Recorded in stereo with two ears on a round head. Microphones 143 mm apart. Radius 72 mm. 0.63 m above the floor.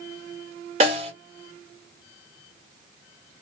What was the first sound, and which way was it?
A snare drum, 40° right (ahead or behind).